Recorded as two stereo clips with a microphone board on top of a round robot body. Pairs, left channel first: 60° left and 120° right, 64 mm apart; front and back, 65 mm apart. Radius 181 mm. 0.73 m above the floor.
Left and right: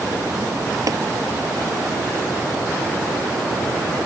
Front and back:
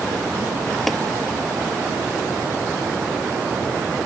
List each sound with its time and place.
0.9 s tapping: 85° right